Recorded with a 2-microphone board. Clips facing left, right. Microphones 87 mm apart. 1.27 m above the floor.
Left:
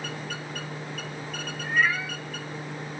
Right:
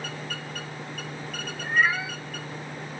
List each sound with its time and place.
1.6 s a cat meowing: 15° right (ahead or behind), 2.5 m